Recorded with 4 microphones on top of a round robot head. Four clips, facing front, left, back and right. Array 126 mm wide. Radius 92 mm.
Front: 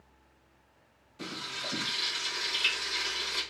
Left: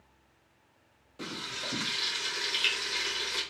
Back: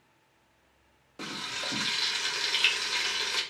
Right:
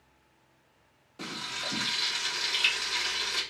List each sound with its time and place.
1.2 s frying: 175° right, 2 m